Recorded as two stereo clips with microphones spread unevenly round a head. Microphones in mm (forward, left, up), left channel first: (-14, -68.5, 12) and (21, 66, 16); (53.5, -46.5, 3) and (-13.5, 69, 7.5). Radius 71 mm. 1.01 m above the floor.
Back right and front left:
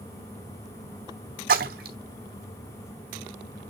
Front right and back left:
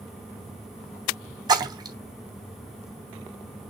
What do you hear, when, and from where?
1.5 s a splash: 65° left, 3 m